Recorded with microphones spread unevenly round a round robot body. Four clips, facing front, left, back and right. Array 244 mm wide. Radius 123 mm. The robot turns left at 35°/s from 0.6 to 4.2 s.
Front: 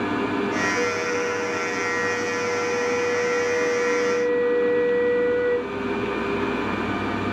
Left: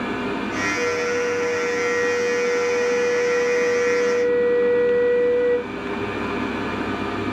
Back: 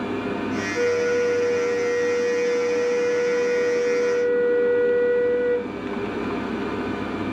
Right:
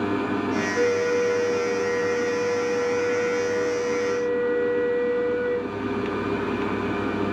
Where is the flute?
70° right, 4 m; by 5.7 s 165° left, 4 m.